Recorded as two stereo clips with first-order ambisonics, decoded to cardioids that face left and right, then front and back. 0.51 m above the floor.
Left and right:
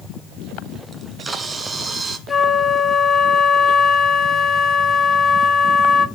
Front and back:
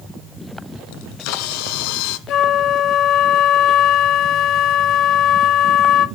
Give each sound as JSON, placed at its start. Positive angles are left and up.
{"t": 0.9, "sound": "a camera shutter", "azimuth_deg": -15, "distance_m": 1.2}
{"t": 2.3, "sound": "a flute", "azimuth_deg": 20, "distance_m": 0.6}